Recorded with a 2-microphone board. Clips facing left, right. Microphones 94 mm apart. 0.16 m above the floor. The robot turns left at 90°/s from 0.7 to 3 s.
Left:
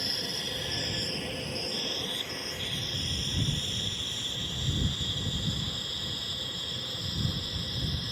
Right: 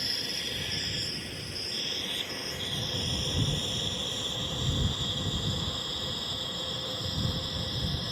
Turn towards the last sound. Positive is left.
turn(degrees=-35)  # may be behind; listen again after turning